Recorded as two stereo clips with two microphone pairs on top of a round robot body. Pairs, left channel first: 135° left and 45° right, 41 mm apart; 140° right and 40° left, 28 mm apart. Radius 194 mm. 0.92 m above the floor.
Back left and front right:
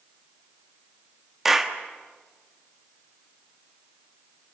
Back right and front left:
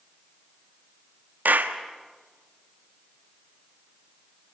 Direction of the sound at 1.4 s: 40° left.